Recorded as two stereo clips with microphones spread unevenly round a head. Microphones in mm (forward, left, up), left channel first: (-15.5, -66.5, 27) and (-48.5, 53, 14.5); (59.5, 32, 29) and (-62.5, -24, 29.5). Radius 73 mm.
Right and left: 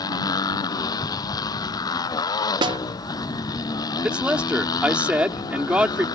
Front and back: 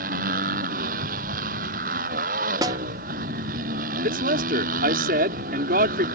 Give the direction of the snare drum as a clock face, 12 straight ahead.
7 o'clock.